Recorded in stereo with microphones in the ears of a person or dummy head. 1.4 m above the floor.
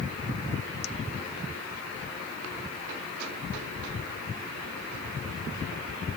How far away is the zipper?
No zipper in this recording.